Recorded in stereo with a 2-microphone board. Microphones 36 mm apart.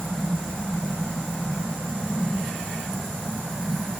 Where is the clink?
No clink in this recording.